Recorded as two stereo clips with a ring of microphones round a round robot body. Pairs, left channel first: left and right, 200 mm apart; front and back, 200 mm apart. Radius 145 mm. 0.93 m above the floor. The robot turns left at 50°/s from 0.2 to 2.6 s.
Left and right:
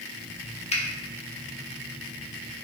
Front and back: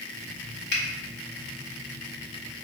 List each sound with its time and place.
0.7 s a finger snap: 30° left, 1.2 m; by 0.8 s 25° left, 1.2 m